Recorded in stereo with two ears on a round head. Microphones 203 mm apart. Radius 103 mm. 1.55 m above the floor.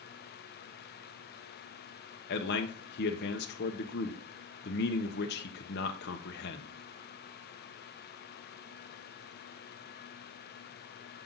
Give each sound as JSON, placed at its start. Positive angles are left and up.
{"t": 2.3, "sound": "a man speaking", "side_deg": 45, "distance_m": 0.8}